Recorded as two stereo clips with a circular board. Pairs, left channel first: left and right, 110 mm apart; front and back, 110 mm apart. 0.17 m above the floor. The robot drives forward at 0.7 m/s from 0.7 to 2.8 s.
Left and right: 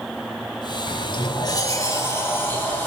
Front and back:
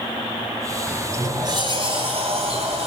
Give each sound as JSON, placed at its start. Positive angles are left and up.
{"t": 0.9, "sound": "a sliding door", "azimuth_deg": 100, "distance_m": 0.5}